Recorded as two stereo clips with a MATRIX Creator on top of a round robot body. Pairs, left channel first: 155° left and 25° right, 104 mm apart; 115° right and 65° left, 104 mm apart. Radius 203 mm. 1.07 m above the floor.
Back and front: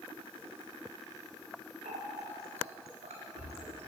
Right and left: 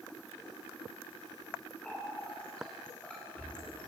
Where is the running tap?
30° right, 5 m.